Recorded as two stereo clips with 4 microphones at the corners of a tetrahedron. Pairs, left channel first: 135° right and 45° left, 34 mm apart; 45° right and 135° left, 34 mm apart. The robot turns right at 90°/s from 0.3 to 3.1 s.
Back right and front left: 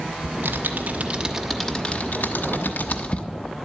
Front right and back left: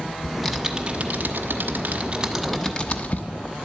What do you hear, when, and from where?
0.2 s typing on a keyboard: 25° left, 1.0 m; by 3.2 s 85° right, 1.0 m